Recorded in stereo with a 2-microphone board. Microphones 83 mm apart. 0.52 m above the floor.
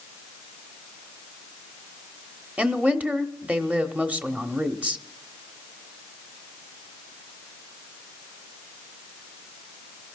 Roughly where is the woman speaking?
Centre.